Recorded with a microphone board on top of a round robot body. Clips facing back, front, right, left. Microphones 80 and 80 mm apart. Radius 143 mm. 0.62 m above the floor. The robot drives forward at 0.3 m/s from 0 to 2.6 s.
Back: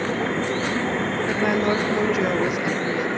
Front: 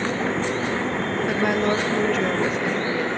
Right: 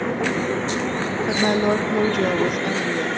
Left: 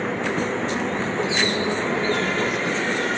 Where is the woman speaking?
85° right, 1.1 m; by 3.1 s 110° right, 1.2 m.